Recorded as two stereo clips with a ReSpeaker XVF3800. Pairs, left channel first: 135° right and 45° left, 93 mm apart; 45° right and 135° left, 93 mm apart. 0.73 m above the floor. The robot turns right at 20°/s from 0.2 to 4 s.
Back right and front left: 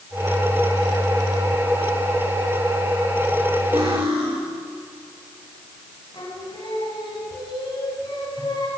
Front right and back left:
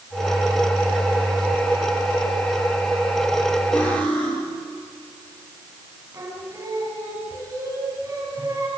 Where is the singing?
170° right, 6.5 m.